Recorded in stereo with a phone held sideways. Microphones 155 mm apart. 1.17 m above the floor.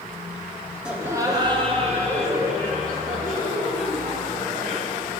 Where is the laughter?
5° right (ahead or behind), 1.0 m; by 5.2 s 70° right (ahead or behind), 3.5 m.